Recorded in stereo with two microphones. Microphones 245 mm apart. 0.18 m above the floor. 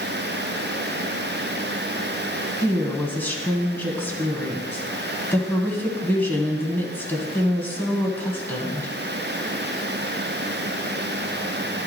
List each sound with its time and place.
2.6 s a woman speaking: 10° left (ahead or behind), 1.2 m